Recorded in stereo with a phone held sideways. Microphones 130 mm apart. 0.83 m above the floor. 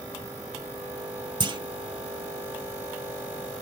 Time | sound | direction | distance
1.4 | a clunk | 35° right (ahead or behind) | 0.7 m